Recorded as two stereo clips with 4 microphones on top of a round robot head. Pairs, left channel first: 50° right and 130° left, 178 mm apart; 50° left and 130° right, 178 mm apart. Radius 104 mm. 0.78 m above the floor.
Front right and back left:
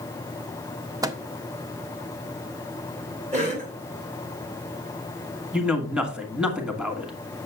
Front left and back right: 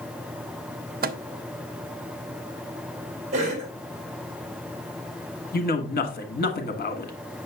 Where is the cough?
Straight behind, 1.9 m.